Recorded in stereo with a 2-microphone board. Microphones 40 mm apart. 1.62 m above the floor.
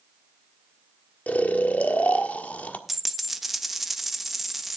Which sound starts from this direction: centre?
A dropped coin, at 2.9 s.